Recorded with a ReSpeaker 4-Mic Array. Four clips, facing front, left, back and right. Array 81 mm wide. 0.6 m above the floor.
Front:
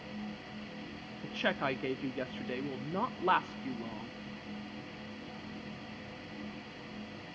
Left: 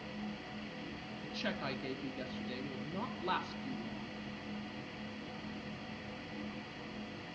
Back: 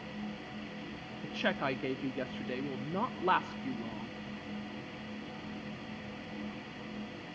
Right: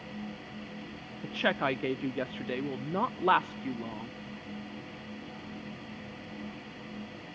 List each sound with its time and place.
1.2 s a woman speaking: 85° right, 0.6 m